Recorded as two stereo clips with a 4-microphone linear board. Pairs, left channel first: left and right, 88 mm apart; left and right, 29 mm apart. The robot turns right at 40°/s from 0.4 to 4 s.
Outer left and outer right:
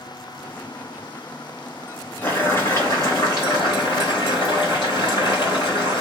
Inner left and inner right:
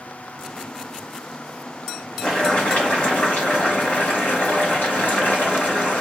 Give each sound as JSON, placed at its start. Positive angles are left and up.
{"t": 2.2, "sound": "boiling", "azimuth_deg": 20, "distance_m": 1.6}